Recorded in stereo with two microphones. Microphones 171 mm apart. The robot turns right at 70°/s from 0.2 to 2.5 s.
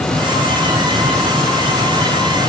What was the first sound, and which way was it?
Only background noise.